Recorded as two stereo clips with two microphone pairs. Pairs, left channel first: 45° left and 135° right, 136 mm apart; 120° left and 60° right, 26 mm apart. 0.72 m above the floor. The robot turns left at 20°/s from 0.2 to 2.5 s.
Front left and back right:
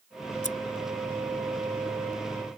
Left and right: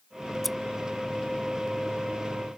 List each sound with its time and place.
0.4 s scissors: 35° left